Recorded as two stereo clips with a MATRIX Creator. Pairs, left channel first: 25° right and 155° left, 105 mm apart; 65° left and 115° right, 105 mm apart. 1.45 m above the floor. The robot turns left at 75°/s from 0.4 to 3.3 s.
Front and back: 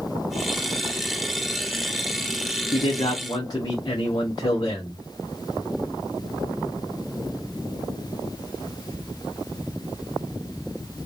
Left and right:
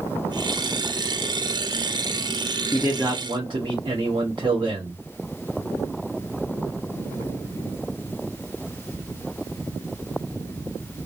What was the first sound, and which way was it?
A man speaking, 30° right.